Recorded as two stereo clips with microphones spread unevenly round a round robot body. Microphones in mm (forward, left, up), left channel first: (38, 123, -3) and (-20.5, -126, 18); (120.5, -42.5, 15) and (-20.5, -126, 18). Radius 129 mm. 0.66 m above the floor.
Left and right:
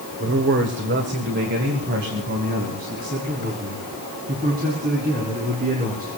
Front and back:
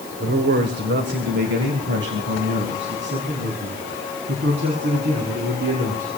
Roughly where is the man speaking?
Behind right.